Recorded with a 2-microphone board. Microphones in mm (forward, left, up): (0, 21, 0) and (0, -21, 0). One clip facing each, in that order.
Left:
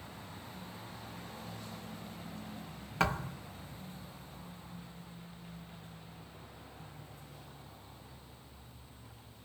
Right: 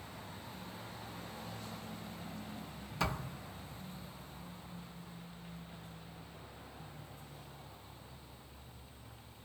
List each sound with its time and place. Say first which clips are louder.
3.0 s a thud: left 5 dB; 60° left (ahead or behind), 2.5 m